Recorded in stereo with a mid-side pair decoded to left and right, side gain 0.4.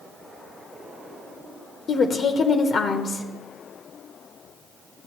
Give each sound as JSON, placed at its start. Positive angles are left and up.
{"t": 1.9, "sound": "a woman speaking", "azimuth_deg": 55, "distance_m": 0.9}